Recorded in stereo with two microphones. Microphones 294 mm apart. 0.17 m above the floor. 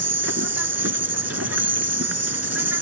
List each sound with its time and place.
0.0 s an insect: 55° right (ahead or behind)